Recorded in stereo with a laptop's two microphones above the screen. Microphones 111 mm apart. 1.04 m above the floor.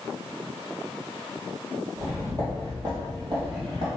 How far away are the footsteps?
About 1.7 m.